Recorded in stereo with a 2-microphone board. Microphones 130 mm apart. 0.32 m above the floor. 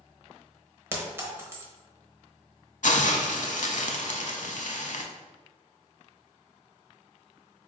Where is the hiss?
70° left (ahead or behind), 0.6 m.